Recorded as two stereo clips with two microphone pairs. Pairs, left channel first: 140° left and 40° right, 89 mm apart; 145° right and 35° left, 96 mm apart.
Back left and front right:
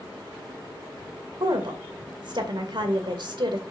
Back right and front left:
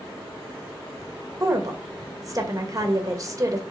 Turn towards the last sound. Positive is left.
turn(degrees=-15)